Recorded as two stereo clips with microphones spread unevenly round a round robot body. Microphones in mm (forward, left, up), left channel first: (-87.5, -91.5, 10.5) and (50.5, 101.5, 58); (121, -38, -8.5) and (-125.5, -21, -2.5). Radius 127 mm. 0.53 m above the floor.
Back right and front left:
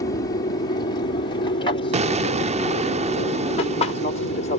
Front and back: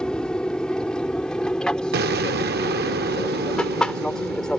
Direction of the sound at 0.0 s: 90° right.